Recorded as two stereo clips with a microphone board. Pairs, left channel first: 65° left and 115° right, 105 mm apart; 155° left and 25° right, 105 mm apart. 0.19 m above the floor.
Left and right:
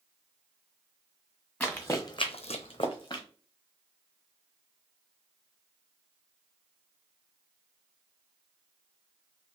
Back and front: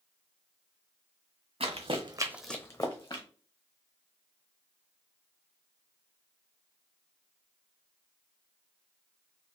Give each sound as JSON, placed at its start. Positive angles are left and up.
{"t": 1.6, "sound": "running footsteps", "azimuth_deg": -10, "distance_m": 1.0}